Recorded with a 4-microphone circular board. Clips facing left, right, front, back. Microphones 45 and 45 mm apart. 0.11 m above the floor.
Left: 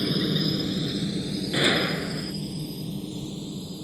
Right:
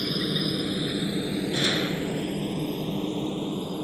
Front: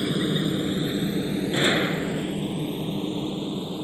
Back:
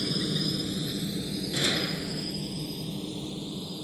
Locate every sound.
0.0 s a helicopter: 5° left; by 3.9 s 60° right
1.5 s a gunshot: 35° left